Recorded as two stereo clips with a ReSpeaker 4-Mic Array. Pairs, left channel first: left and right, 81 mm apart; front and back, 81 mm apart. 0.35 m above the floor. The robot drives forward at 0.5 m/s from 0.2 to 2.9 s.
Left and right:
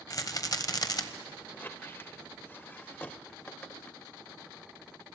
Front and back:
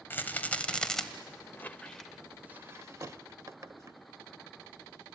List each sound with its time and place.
0.1 s a rattle: 60° left, 1.2 m; by 1.0 s 85° left, 1.1 m
1.5 s a squeak: 40° left, 0.6 m; by 4.0 s 150° left, 0.7 m